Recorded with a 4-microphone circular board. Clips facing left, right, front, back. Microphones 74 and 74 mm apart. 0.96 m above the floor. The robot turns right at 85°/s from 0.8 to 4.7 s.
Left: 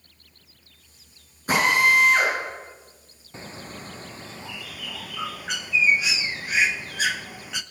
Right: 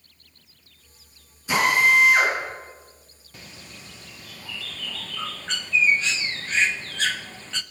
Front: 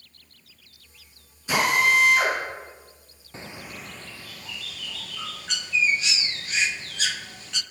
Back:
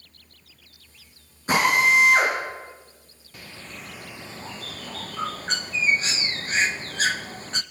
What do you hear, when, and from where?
1.5 s a drill: 130° left, 10 m; by 2.3 s 155° right, 10 m
3.3 s a bird: 45° left, 0.5 m; by 7.6 s 160° left, 0.5 m